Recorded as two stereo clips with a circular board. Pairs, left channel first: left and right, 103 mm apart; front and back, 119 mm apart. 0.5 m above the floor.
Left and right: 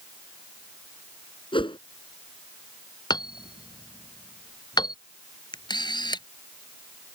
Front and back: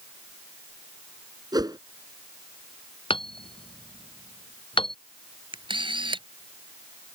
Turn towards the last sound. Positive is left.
turn(degrees=135)